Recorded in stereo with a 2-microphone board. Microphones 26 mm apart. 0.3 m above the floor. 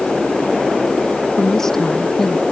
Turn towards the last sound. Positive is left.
turn(degrees=15)  # may be behind; listen again after turning